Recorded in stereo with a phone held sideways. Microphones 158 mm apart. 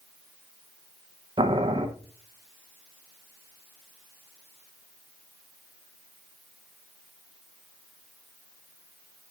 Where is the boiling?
30° right (ahead or behind), 0.8 m.